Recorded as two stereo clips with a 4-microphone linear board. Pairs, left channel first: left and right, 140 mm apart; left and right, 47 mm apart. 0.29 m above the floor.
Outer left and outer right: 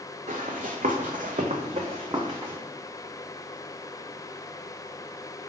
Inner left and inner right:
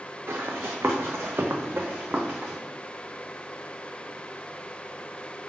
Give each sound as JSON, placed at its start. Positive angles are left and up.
{"t": 0.3, "sound": "running footsteps", "side_deg": -65, "distance_m": 1.1}